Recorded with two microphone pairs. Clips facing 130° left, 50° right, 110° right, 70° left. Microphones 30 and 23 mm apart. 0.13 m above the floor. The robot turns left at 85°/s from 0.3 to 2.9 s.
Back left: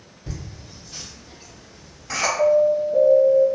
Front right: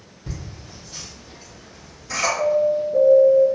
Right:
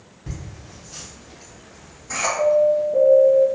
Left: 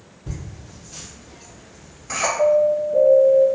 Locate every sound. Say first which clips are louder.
0.3 s laughter: front right 1 dB, left 1 dB; 120° right, 1.9 m; by 2.3 s 70° left, 1.9 m
2.4 s an alarm: back left 3 dB, even; 80° left, 1.7 m; by 3.5 s 35° left, 1.7 m